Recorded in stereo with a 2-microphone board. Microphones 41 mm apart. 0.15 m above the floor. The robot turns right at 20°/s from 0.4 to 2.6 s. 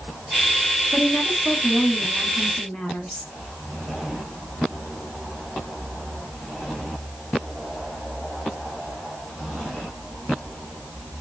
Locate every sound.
0.9 s a woman speaking: 5° right, 1.4 m; by 3.3 s 25° left, 1.4 m